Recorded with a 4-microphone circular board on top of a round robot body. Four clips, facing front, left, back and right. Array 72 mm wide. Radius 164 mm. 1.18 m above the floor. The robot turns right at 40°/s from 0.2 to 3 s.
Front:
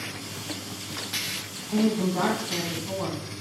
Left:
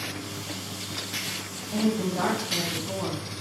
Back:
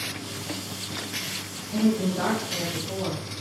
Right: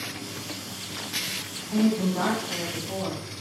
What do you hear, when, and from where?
1.7 s a woman speaking: 25° right, 1.6 m; by 3.2 s 25° left, 1.6 m